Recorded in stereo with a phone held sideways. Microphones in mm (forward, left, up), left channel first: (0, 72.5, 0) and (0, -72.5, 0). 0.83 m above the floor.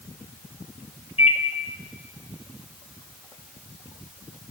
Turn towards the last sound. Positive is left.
turn(degrees=40)  # may be behind; listen again after turning